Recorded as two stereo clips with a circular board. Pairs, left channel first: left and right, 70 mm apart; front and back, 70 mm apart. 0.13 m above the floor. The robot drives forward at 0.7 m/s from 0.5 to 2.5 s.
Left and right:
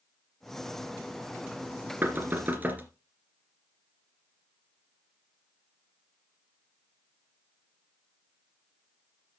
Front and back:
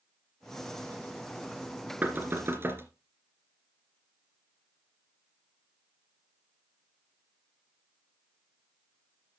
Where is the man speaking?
No man speaking in this recording.